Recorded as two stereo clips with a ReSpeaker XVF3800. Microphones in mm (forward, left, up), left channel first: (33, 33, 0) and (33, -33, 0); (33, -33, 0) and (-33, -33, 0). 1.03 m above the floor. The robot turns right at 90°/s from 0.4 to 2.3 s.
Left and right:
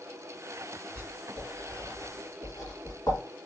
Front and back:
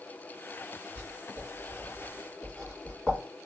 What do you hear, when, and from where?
0.9 s writing: 50° right, 2.5 m; by 3.2 s 75° left, 2.5 m